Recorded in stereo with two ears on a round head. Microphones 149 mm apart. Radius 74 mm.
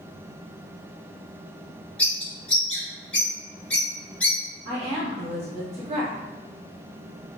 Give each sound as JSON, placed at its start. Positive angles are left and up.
{"t": 2.0, "sound": "a bird", "side_deg": 5, "distance_m": 1.1}
{"t": 4.7, "sound": "a woman speaking", "side_deg": -40, "distance_m": 1.1}